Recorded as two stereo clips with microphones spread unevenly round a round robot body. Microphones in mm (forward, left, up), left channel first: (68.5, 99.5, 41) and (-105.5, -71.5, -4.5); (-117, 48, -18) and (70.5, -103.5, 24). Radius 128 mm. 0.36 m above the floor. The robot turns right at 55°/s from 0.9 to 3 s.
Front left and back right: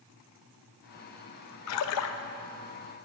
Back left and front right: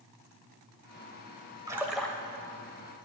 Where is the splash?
45° left, 0.6 m; by 2.2 s 70° left, 0.6 m.